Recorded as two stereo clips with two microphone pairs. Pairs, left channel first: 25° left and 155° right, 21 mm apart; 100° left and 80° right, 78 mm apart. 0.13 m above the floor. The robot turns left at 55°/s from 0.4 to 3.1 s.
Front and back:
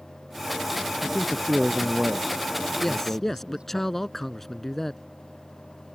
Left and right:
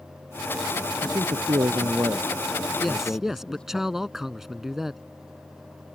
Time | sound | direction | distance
1.0 | a man speaking | 70° right | ?
2.8 | a man speaking | 15° left | ?